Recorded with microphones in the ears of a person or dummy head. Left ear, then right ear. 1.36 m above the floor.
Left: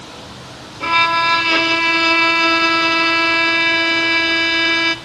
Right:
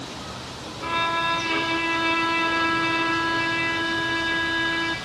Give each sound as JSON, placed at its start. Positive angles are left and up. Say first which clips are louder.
{"t": 0.8, "sound": "a violin", "louder": "left 9 dB", "side_deg": 70, "distance_m": 0.7}